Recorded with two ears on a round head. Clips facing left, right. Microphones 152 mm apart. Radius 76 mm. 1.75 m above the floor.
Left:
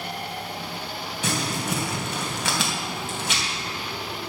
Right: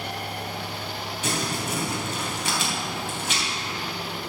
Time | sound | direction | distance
1.2 | crumpling | 60° left (ahead or behind) | 3 m